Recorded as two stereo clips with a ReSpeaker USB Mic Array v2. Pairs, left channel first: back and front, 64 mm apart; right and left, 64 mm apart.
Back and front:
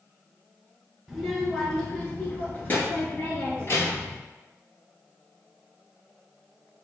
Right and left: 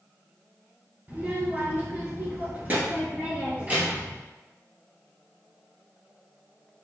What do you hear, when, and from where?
1.1 s a child speaking: 80° left, 1.3 m; by 4.2 s 150° left, 2 m